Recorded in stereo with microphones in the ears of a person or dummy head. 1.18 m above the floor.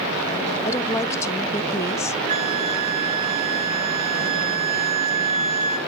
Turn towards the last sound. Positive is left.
turn(degrees=-45)  # may be behind; listen again after turning